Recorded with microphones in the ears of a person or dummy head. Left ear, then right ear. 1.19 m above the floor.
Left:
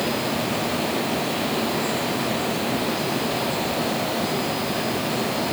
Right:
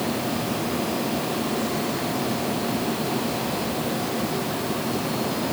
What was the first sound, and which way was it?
Only background noise.